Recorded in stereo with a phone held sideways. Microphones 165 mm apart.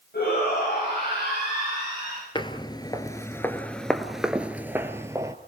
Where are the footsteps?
30° left (ahead or behind), 1.3 m; by 5.3 s 20° right (ahead or behind), 1.5 m.